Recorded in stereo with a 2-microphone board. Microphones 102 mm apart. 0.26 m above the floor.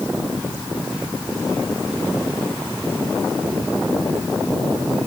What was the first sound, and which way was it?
Only background noise.